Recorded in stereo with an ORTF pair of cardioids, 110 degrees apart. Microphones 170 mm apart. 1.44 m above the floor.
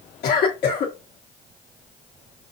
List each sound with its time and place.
0.2 s a cough: 65° left, 1.2 m